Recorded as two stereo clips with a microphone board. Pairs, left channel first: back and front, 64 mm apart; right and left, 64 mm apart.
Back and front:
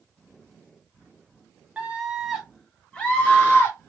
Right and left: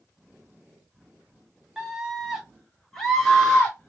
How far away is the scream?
About 1.0 m.